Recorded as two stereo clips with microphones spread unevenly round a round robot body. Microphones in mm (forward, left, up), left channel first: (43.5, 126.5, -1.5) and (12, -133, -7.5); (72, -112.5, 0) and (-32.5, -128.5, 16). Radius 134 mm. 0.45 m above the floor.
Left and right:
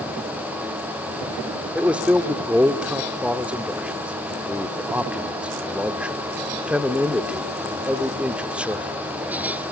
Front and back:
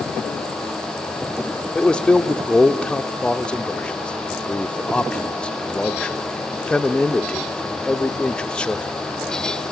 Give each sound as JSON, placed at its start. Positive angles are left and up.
{"t": 1.8, "sound": "a man speaking", "azimuth_deg": -20, "distance_m": 0.7}